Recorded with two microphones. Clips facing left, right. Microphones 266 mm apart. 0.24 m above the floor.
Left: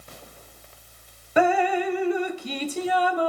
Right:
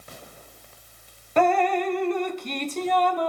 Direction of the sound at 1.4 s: 5° left (ahead or behind).